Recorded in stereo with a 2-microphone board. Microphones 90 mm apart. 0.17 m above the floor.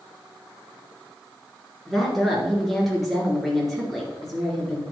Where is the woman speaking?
Centre (ahead or behind), 3 m.